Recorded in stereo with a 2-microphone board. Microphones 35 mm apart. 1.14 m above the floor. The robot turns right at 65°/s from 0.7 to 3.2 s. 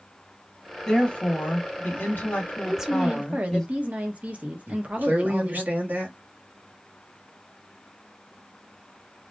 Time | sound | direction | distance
0.9 | a woman speaking | 15° left | 1.7 m
2.7 | a woman speaking | 170° right | 0.8 m
4.7 | a man speaking | 60° right (ahead or behind) | 1.0 m